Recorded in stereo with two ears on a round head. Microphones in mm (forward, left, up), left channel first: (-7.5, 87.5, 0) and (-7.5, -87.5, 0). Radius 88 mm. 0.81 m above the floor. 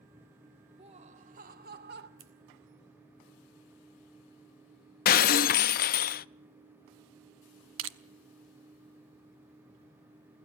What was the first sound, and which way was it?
Laughter, 30° right (ahead or behind).